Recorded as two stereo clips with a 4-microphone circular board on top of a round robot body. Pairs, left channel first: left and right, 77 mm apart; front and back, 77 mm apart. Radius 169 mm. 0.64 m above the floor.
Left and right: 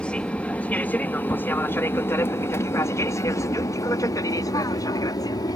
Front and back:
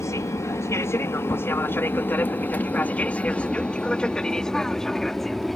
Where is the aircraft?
20° left; by 5.6 s 90° left.